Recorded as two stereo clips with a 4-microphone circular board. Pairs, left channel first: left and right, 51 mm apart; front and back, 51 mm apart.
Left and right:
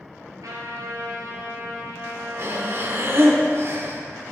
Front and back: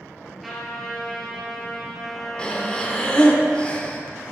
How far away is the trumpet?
About 2.5 m.